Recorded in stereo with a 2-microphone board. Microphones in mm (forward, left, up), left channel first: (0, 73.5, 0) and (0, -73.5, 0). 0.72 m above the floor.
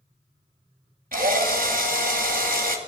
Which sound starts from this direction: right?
A drill, at 1.1 s.